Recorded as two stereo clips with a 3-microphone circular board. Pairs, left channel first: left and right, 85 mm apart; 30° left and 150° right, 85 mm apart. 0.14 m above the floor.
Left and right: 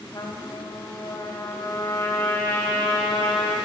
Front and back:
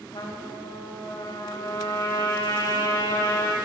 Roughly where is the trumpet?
Ahead left.